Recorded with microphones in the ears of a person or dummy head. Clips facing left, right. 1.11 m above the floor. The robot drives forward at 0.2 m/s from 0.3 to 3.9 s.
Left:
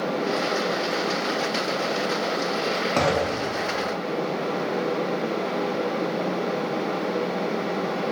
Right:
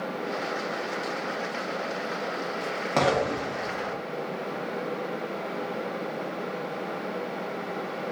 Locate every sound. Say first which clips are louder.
3.0 s an explosion: right 1 dB; centre (ahead or behind), 0.6 m